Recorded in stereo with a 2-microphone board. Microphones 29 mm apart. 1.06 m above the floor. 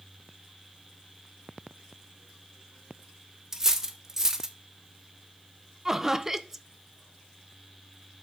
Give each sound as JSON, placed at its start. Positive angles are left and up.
{"t": 3.5, "sound": "cutlery clinking", "side_deg": -15, "distance_m": 0.7}
{"t": 5.8, "sound": "laughter", "side_deg": -20, "distance_m": 0.6}